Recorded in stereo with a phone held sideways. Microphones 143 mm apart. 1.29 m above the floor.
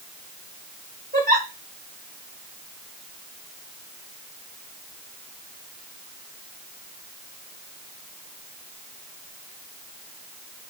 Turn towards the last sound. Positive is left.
turn(degrees=-65)  # may be behind; listen again after turning